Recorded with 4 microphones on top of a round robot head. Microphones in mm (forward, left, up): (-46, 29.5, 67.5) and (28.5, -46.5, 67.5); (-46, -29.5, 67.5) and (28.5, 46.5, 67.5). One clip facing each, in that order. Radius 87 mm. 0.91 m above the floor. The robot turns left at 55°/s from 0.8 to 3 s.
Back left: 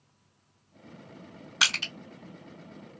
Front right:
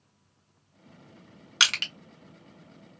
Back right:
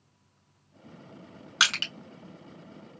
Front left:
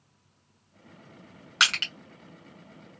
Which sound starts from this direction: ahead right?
Crushing, at 1.6 s.